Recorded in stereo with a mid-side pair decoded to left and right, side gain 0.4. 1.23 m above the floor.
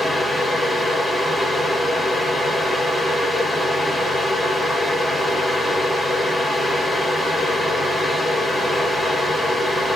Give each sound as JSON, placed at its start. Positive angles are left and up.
{"t": 0.0, "sound": "a fan", "azimuth_deg": 15, "distance_m": 2.5}